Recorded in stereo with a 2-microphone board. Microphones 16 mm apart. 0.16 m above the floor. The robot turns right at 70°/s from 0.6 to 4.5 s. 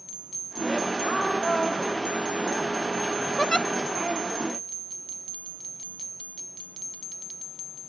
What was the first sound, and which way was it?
A woman speaking, 45° left (ahead or behind).